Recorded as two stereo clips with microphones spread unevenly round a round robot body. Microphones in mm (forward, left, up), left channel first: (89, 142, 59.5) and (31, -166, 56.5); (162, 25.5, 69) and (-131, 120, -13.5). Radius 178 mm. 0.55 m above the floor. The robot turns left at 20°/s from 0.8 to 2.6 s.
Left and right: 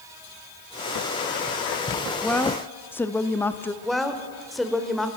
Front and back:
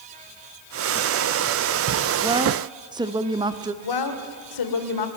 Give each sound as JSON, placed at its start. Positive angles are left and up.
{"t": 2.2, "sound": "a woman speaking", "azimuth_deg": 165, "distance_m": 0.9}
{"t": 3.8, "sound": "a woman speaking", "azimuth_deg": -10, "distance_m": 2.5}